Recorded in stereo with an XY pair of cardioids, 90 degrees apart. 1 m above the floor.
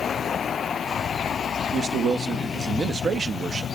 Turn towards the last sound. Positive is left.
turn(degrees=-60)